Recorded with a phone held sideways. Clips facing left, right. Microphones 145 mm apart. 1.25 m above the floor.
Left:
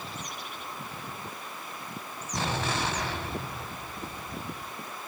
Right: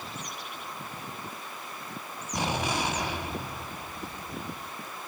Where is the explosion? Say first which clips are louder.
Right 1 dB; 15° right (ahead or behind), 1.5 m.